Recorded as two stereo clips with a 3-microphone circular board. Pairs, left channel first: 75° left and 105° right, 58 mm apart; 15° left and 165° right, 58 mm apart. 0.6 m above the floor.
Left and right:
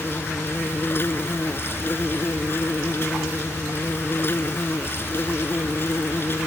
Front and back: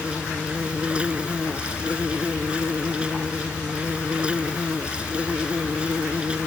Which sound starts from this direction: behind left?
An insect, at 0.0 s.